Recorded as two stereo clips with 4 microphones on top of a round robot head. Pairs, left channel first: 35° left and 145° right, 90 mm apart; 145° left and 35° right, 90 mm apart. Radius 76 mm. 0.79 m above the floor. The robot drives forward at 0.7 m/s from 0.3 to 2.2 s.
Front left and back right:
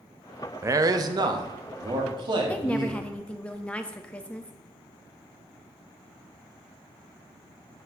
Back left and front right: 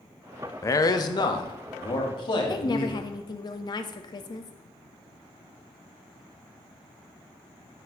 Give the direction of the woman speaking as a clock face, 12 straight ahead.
8 o'clock.